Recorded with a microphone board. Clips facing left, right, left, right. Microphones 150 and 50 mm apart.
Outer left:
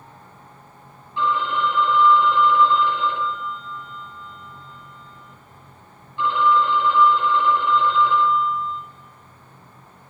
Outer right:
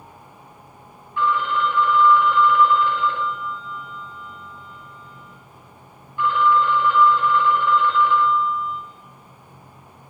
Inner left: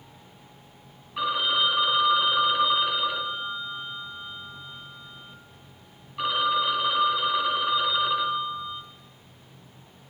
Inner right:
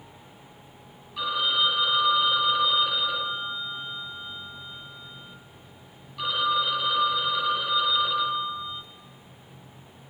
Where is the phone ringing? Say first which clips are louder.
Outer right 1 dB, inner left 1 dB; 25° left (ahead or behind), 1.3 m.